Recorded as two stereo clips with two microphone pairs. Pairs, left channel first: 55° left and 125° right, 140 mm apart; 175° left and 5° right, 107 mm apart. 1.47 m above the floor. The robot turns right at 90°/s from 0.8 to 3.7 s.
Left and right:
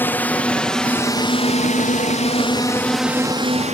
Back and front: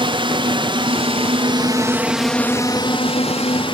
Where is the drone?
15° right; by 3.7 s 155° right.